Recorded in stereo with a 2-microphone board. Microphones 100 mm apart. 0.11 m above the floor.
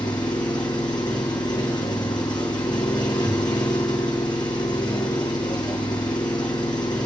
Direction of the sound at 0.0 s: 45° left (ahead or behind).